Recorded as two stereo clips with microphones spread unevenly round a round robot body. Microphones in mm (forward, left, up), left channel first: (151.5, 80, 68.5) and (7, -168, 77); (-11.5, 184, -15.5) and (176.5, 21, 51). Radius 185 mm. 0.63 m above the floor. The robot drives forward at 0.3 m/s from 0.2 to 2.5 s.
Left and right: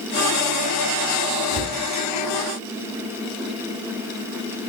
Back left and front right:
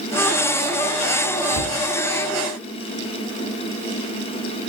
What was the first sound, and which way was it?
A cupboard door, 80° left.